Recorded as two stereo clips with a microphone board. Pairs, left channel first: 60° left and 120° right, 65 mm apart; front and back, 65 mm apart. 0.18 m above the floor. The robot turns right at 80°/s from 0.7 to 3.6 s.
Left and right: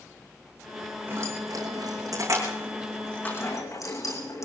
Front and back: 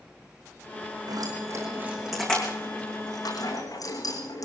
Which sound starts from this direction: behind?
Keys jangling, at 1.1 s.